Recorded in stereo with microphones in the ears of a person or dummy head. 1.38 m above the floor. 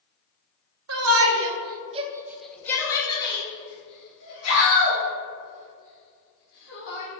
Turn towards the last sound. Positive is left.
turn(degrees=50)  # may be behind; listen again after turning